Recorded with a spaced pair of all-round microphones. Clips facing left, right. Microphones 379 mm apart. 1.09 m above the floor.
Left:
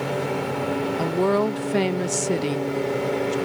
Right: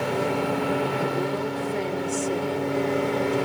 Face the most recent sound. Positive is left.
turn(degrees=70)  # may be behind; listen again after turning